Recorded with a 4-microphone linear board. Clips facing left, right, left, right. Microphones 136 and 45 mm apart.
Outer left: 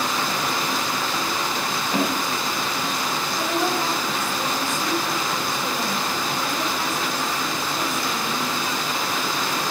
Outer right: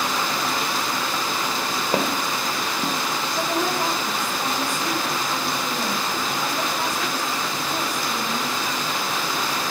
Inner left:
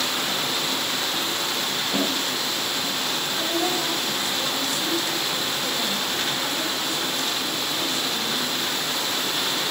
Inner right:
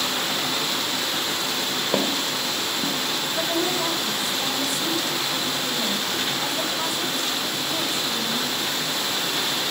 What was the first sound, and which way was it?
Footsteps, 35° right (ahead or behind).